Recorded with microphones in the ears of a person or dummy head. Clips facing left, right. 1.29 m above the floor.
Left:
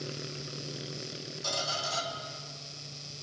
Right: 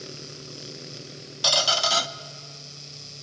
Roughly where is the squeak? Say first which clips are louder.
Right 10 dB; right.